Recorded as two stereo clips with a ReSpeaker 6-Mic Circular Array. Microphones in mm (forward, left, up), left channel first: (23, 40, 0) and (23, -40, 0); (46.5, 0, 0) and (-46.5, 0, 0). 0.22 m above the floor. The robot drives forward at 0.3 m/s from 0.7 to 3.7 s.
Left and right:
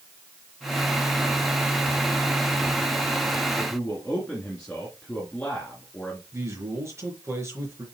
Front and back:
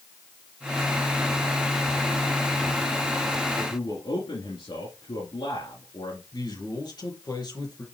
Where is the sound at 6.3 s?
35° right, 4 m.